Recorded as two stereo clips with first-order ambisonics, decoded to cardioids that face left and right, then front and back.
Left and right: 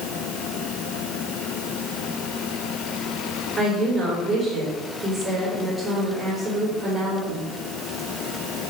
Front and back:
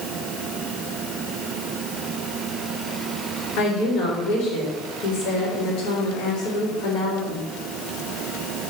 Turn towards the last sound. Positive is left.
turn(degrees=-10)